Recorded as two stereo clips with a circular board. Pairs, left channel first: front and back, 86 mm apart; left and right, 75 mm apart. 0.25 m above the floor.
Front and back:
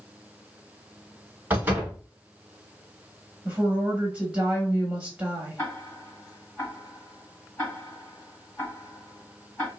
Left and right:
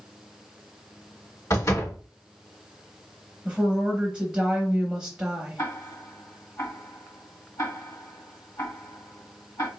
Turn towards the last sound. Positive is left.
turn(degrees=75)